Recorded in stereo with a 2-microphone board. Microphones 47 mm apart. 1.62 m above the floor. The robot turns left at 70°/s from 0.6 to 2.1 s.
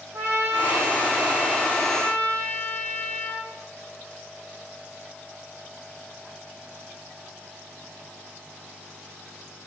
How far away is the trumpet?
About 4.5 m.